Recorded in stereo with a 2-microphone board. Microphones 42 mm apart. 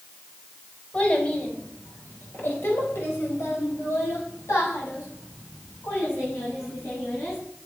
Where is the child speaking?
30° left (ahead or behind), 4.5 m; by 7.4 s 70° left (ahead or behind), 8.5 m.